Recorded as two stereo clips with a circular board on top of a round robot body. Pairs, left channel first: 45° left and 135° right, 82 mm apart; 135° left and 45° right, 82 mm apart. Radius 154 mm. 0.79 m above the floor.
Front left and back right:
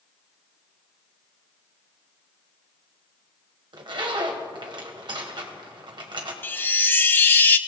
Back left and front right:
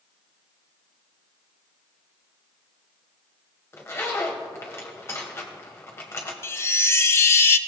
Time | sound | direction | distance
3.7 | a zipper | 165° right | 1.6 m
6.4 | a chime | 100° left | 1.2 m